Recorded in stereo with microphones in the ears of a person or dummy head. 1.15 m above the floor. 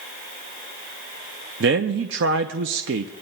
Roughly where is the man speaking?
Right.